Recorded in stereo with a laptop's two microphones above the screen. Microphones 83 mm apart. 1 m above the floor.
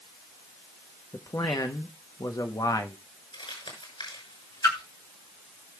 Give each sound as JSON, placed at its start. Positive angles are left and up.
{"t": 1.1, "sound": "a man speaking", "side_deg": 45, "distance_m": 0.8}
{"t": 3.3, "sound": "crumpling", "side_deg": 80, "distance_m": 6.0}
{"t": 4.6, "sound": "a splash", "side_deg": 45, "distance_m": 3.0}